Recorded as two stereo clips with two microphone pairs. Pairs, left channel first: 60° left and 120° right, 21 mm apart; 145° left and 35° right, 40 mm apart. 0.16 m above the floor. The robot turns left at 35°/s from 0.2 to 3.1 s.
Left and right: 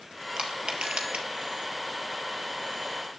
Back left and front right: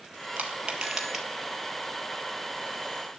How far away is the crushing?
About 1.7 m.